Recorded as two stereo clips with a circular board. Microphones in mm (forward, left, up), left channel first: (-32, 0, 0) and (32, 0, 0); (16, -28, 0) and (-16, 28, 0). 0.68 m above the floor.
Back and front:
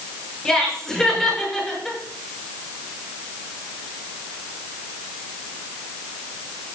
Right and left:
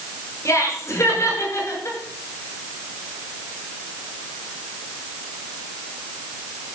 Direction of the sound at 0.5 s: 100° right.